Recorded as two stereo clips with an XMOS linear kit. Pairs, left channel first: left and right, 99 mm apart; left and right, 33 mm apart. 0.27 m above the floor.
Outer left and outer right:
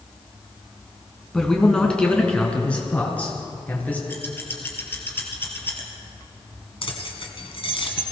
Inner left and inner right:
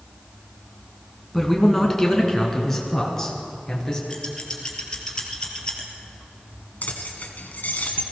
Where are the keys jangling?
65° left (ahead or behind), 1.6 m.